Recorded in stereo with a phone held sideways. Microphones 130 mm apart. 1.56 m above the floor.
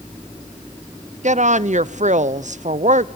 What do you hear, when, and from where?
1.2 s a woman speaking: 65° right (ahead or behind), 0.7 m